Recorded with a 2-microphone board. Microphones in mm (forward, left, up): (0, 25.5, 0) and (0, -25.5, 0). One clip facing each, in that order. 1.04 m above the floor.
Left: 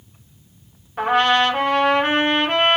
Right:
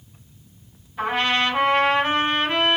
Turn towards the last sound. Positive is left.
turn(degrees=55)  # may be behind; listen again after turning